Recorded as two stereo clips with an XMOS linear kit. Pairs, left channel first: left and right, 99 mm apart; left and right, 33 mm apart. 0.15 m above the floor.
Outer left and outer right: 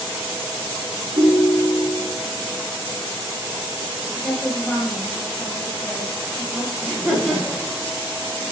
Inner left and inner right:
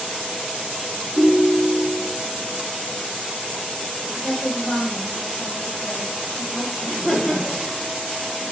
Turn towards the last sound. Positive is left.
turn(degrees=-5)  # may be behind; listen again after turning